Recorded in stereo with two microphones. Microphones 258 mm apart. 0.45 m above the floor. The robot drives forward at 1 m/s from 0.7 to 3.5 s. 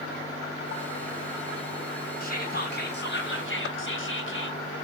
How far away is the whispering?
About 3.5 m.